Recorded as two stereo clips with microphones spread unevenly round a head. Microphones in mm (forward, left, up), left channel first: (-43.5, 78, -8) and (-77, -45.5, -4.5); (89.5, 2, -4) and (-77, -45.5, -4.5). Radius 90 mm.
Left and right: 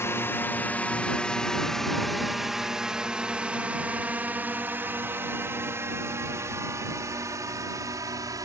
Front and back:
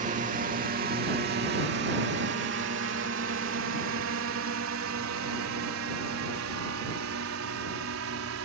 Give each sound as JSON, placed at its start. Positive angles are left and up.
{"t": 0.0, "sound": "a drone", "azimuth_deg": 145}